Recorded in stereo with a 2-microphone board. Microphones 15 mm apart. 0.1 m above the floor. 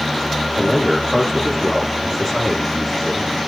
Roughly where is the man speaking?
Left.